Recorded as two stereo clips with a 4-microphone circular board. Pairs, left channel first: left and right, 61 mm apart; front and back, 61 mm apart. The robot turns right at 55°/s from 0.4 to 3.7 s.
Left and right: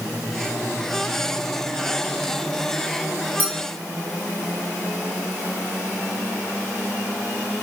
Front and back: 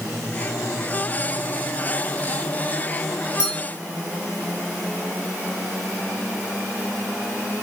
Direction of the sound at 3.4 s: 30° left.